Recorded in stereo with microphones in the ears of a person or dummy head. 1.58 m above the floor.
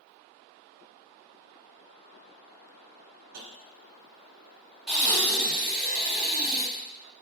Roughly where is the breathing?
Centre.